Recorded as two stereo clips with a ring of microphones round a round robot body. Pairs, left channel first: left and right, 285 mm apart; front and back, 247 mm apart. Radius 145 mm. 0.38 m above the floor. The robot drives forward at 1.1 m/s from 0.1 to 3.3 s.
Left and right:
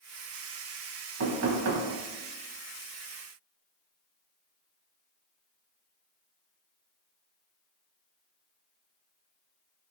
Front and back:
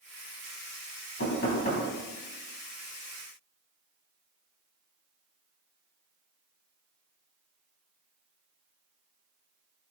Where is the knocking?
50° right, 3 m; by 1.9 s 65° right, 2.5 m.